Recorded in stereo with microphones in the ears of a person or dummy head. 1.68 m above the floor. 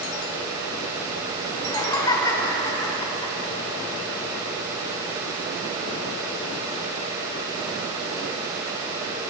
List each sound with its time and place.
1.5 s laughter: 20° left (ahead or behind), 6.5 m